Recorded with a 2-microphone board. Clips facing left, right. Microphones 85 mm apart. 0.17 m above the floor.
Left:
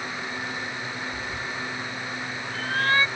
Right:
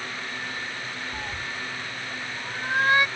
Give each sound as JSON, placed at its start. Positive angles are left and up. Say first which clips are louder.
{"t": 1.1, "sound": "a cat meowing", "louder": "left 1 dB", "side_deg": -35}